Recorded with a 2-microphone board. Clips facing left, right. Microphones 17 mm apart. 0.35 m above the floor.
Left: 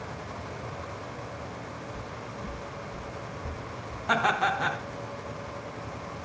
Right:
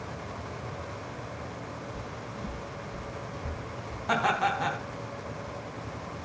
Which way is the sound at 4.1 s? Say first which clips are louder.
Left 1 dB; 5° left (ahead or behind).